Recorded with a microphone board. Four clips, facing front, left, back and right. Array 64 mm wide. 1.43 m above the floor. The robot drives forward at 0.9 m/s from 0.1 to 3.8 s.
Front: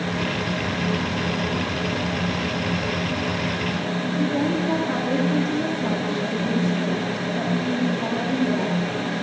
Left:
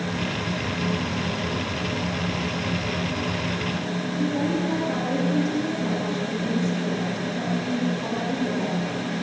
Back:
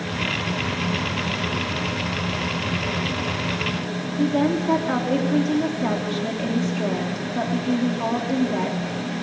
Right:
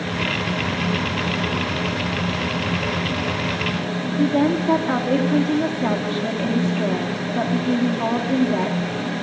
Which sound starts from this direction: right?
A woman speaking, at 4.2 s.